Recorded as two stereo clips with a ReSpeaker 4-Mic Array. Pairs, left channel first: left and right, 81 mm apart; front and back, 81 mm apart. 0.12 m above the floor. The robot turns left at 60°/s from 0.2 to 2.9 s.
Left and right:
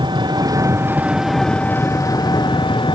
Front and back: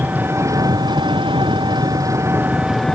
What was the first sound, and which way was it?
An engine running, 115° right.